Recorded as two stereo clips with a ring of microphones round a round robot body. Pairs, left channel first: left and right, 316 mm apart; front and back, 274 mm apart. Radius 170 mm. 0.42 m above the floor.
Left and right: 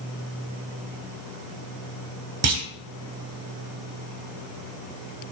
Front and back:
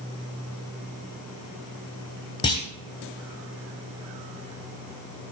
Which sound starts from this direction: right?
A clunk, at 2.4 s.